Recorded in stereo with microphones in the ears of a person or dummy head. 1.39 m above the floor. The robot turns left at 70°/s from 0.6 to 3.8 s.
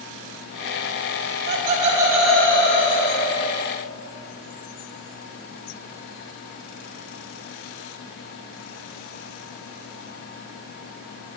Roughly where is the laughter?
Right.